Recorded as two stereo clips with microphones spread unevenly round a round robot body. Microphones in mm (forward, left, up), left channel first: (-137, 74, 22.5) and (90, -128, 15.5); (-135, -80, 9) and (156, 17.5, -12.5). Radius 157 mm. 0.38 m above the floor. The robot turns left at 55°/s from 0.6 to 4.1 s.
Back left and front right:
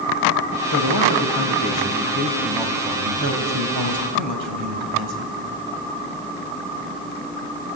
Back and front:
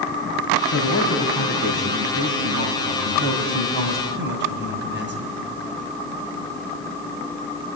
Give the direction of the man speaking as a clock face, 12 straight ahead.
7 o'clock.